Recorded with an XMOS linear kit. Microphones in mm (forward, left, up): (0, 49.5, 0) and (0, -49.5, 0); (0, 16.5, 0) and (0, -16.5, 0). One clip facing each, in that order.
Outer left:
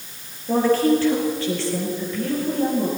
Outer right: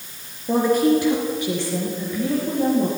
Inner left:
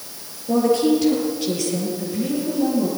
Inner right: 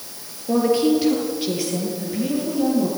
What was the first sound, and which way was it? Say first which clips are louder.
A woman speaking: even, even; 15° right (ahead or behind).